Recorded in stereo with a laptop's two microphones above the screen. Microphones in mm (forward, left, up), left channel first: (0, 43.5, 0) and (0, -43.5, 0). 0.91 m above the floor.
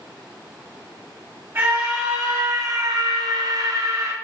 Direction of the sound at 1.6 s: 30° right (ahead or behind).